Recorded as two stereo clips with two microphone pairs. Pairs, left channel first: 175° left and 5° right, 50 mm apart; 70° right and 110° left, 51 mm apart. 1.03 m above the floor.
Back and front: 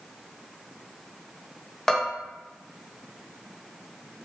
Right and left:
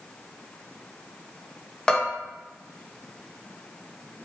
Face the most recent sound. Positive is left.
turn(degrees=-125)